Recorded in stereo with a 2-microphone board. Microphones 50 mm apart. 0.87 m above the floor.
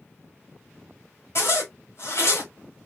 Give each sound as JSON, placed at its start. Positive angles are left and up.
{"t": 1.4, "sound": "a zipper", "side_deg": 55, "distance_m": 1.1}